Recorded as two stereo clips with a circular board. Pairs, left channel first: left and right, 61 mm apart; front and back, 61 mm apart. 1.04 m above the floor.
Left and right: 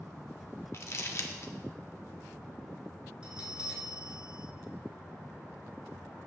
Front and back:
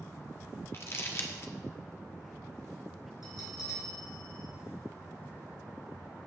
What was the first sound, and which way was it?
Crumpling, 45° left.